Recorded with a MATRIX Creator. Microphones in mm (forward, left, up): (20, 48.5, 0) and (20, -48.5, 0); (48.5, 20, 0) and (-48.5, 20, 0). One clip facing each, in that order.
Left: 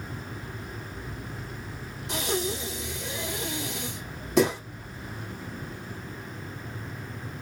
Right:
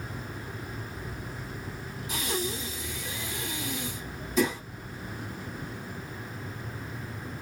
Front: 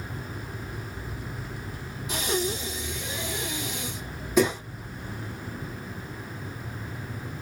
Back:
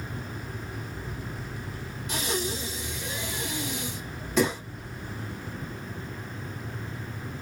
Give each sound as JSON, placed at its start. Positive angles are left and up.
{"t": 2.1, "sound": "breathing", "azimuth_deg": 80, "distance_m": 4.5}